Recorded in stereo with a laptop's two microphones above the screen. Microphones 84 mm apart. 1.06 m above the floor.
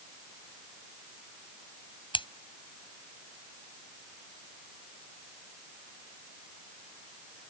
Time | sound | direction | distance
2.1 | scissors | 85° left | ?